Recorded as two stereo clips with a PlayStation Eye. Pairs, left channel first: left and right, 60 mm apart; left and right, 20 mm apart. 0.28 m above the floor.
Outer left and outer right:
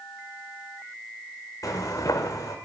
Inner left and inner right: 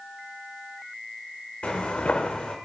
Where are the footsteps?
60° left (ahead or behind), 0.8 m.